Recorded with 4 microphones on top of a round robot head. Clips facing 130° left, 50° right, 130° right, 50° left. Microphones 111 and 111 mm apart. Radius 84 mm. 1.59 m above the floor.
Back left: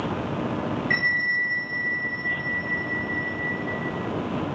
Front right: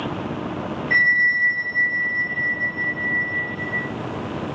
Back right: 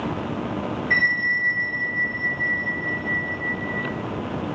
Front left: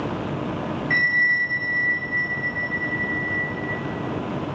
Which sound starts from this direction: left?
A bell, at 0.9 s.